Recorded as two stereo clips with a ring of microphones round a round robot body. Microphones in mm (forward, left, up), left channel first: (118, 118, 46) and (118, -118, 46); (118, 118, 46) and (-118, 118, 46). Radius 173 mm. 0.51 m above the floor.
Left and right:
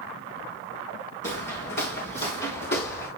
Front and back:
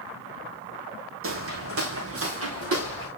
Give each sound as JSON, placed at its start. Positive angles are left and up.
{"t": 1.2, "sound": "footsteps", "azimuth_deg": 150, "distance_m": 1.8}